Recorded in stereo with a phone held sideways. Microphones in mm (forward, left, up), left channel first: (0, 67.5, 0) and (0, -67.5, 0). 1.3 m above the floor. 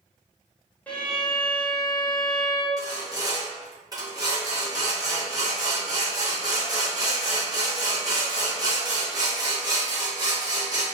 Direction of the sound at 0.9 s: 10° left (ahead or behind).